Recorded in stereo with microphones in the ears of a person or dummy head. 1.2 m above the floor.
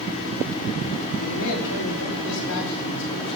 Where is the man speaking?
80° left, 4 m; by 3.4 s 65° left (ahead or behind), 5 m.